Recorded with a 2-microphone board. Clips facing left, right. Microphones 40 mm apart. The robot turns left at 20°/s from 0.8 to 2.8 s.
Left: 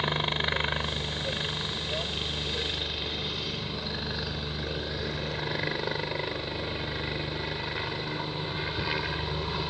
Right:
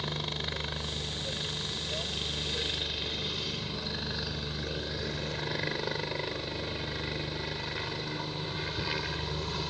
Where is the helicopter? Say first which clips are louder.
Left 7 dB; 40° left (ahead or behind); by 9.7 s 15° left (ahead or behind).